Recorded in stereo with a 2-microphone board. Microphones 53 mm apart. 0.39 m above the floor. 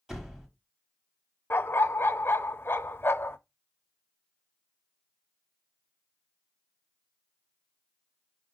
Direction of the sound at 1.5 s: 50° left (ahead or behind).